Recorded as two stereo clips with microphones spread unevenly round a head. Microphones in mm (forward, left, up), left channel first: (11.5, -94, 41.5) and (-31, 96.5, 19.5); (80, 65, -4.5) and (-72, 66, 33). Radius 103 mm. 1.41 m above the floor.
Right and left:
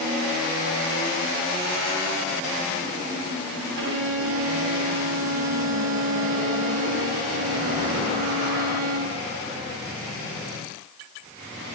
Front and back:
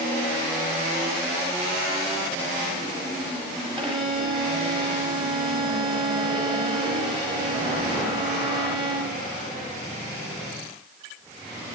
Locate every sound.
3.8 s a violin: 120° left, 4 m